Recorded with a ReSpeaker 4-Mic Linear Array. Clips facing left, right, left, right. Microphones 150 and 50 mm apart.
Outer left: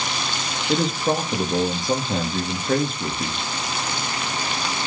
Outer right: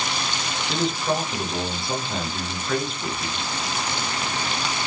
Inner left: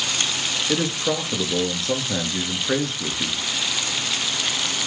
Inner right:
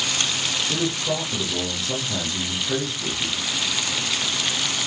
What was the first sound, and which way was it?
A man speaking, 45° left (ahead or behind).